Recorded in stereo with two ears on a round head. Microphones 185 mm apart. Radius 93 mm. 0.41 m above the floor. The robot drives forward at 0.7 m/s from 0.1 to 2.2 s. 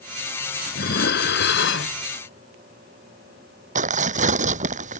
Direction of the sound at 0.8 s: 45° left (ahead or behind).